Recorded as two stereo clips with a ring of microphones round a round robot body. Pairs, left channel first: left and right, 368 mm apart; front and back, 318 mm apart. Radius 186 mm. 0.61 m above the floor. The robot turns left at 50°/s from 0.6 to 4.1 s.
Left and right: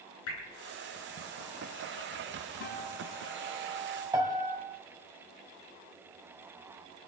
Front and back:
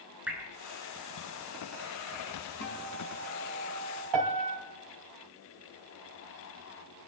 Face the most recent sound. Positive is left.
turn(degrees=-170)